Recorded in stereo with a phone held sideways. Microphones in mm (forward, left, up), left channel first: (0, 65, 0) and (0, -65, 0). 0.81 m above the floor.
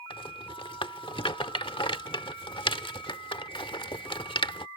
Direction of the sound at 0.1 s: 40° left (ahead or behind).